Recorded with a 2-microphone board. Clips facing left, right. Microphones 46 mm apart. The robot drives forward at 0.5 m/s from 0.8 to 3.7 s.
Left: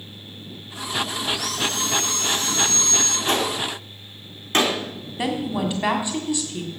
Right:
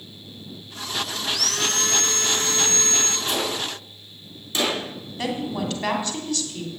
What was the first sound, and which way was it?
Sawing, 75° right (ahead or behind).